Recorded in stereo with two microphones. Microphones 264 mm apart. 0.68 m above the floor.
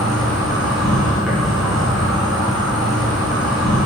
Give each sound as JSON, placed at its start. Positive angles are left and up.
{"t": 0.0, "sound": "an insect", "side_deg": 0, "distance_m": 3.5}